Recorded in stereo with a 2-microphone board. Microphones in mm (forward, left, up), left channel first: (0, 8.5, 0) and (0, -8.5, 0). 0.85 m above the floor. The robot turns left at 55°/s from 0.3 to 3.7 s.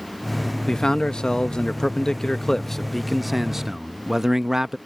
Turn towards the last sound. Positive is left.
turn(degrees=-30)